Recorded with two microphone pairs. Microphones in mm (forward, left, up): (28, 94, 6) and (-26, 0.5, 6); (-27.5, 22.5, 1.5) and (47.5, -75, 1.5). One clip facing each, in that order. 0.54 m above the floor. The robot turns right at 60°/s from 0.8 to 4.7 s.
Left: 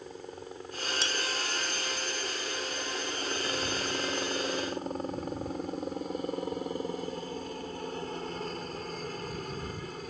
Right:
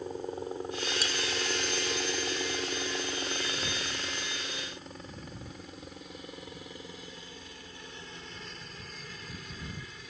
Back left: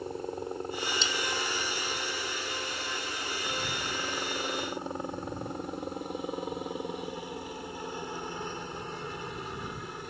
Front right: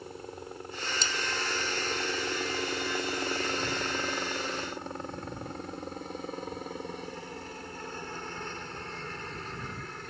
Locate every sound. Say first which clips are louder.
0.0 s a helicopter: right 6 dB, back left 7 dB; straight behind; by 10.1 s 55° left
1.0 s cutlery clinking: even, back left 2 dB; 5° right; by 1.1 s 5° left